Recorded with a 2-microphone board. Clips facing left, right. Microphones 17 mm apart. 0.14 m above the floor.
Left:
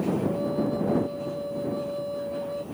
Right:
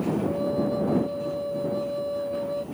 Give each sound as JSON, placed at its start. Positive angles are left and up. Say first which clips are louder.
{"t": 0.2, "sound": "a flute", "louder": "right 1 dB", "side_deg": -5}